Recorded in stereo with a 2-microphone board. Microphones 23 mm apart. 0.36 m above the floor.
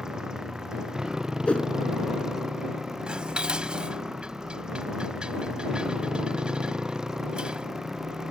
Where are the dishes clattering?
50° right (ahead or behind).